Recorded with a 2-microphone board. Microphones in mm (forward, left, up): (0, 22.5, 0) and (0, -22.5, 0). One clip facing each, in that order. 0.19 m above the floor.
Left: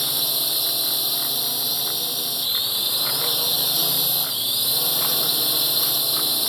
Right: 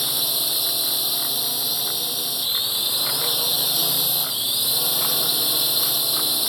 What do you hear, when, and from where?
0.0 s a drone: centre (ahead or behind)